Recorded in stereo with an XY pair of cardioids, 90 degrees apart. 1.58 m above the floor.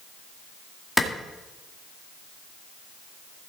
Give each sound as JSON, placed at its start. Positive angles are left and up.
{"t": 1.0, "sound": "a clap", "azimuth_deg": 10, "distance_m": 2.0}